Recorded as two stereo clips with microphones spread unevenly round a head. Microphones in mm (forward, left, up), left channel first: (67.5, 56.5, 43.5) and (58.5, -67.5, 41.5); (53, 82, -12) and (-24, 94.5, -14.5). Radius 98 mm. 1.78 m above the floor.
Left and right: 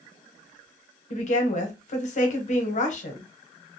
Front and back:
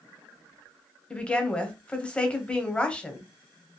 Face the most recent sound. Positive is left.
turn(degrees=65)